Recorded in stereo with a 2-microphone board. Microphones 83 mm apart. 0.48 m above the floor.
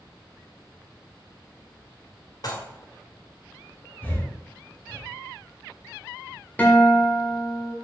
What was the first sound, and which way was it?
Dishes clattering, 50° left (ahead or behind).